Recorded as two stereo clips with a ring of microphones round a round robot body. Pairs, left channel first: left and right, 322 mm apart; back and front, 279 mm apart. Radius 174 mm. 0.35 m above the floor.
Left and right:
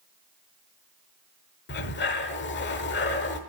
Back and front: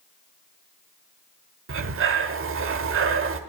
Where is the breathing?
35° left, 1.0 m.